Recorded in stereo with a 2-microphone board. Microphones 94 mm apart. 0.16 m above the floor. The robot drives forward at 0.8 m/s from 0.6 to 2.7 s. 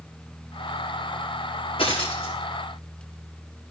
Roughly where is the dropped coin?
Left.